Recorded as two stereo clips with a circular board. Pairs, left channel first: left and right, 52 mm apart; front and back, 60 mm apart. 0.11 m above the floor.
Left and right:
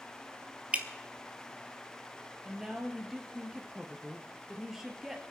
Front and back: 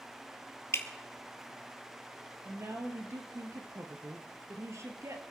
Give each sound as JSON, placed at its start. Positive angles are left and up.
{"t": 0.7, "sound": "dripping", "azimuth_deg": -30, "distance_m": 1.5}
{"t": 2.5, "sound": "a woman speaking", "azimuth_deg": -175, "distance_m": 2.5}